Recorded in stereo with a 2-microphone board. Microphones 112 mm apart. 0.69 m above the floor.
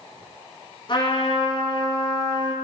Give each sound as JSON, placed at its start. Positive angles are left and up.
{"t": 0.9, "sound": "a trumpet", "side_deg": 45, "distance_m": 3.0}